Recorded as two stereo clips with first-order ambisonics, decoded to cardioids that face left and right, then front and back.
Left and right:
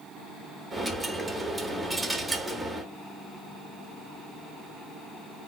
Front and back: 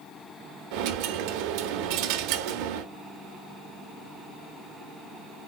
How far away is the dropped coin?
About 0.6 m.